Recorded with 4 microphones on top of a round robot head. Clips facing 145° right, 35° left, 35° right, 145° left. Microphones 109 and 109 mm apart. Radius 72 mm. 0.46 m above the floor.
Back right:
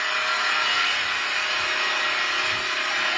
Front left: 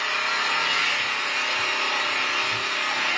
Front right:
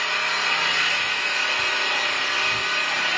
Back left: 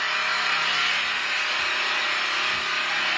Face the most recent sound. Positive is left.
turn(degrees=5)